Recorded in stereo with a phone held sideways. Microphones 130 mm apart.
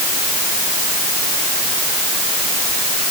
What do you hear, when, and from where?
Only background noise.